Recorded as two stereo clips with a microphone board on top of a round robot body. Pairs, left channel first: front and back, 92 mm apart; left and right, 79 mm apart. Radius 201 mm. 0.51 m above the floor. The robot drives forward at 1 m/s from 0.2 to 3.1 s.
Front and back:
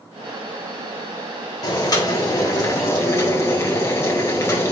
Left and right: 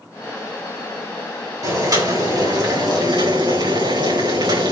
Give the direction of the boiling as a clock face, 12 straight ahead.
2 o'clock.